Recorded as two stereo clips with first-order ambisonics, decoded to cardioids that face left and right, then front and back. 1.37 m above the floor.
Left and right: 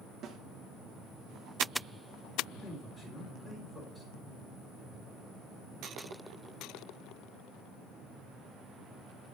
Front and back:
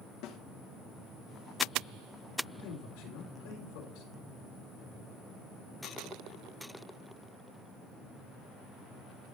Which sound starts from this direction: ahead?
A man speaking, at 2.6 s.